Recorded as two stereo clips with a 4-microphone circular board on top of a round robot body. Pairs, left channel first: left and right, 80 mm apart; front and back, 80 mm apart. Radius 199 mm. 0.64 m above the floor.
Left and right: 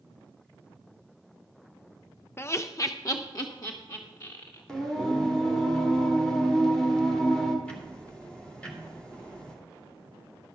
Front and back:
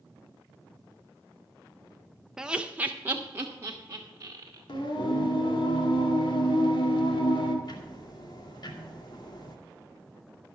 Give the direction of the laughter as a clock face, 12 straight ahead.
9 o'clock.